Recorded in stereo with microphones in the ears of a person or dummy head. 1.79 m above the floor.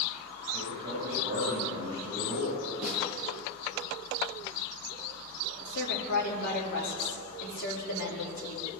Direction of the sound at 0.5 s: 35° right (ahead or behind).